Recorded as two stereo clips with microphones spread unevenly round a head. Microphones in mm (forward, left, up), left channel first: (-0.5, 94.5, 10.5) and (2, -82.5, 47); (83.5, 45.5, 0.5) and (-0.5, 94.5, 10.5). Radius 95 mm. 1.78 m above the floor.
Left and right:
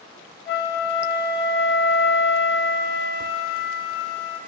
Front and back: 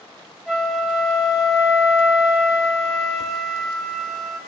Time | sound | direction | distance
0.5 | a flute | 60° left | 4 m